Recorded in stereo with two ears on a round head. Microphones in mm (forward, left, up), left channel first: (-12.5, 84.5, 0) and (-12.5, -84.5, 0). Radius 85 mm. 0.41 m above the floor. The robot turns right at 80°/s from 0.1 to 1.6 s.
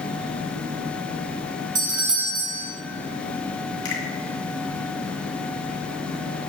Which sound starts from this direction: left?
A finger snap, at 3.9 s.